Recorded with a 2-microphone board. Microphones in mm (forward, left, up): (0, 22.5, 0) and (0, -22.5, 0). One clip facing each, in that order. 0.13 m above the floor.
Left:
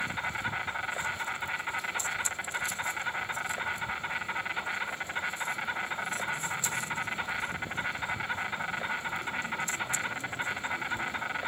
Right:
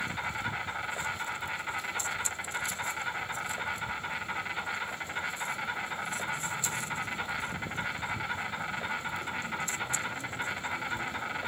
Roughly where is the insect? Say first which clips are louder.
Left 1 dB; centre.